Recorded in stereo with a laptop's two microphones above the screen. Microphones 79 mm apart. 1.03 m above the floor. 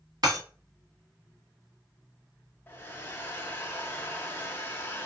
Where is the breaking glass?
55° right (ahead or behind), 1.7 m.